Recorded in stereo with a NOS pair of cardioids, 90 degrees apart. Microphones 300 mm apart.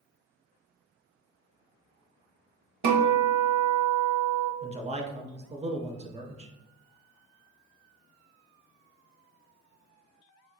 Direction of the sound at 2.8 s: 70° right.